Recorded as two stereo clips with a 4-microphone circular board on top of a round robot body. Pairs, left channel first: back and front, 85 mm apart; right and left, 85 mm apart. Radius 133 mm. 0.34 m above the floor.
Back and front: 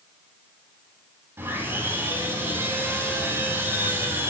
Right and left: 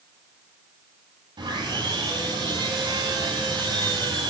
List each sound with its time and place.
1.4 s sawing: 60° left, 7 m